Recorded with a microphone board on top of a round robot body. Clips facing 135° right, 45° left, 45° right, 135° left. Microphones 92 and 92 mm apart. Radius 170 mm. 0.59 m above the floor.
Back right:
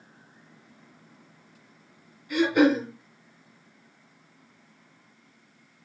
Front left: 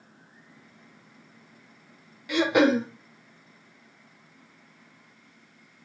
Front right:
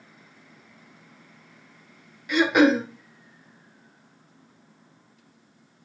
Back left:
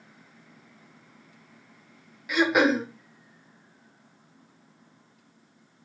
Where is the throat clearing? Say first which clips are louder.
Even, front right 3 dB; 50° left, 1.4 m.